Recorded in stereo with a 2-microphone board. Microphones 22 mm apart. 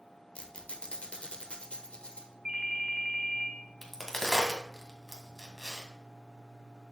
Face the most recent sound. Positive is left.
turn(degrees=20)  # may be behind; listen again after turning